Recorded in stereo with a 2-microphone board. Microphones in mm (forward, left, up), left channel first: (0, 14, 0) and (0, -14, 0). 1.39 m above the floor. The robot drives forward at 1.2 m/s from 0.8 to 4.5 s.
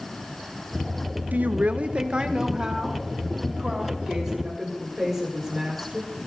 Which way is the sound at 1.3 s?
80° right.